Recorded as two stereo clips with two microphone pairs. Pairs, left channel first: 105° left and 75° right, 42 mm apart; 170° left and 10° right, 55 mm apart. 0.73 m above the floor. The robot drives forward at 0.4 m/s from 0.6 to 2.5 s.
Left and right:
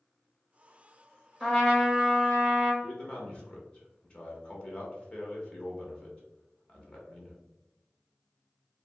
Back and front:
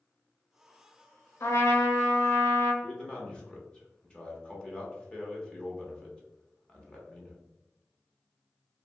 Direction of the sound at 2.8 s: 125° left.